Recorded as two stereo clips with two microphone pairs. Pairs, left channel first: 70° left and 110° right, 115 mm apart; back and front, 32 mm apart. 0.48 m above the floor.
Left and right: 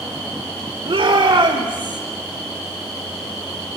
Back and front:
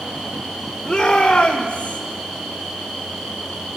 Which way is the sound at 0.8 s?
105° right.